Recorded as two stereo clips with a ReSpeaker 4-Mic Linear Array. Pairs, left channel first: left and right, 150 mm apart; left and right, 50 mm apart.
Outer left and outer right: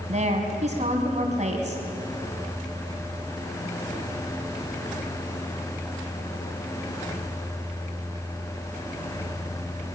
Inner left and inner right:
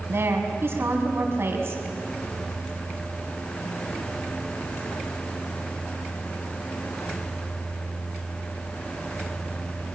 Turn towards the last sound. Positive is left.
turn(degrees=-55)  # may be behind; listen again after turning